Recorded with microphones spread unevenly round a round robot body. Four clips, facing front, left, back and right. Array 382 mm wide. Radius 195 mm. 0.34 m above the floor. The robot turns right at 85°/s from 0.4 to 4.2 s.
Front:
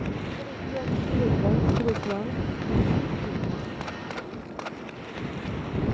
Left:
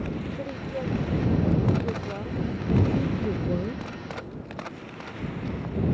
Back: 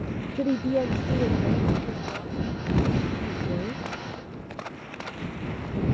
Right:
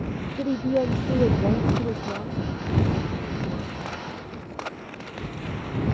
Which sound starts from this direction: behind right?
A woman speaking, at 0.3 s.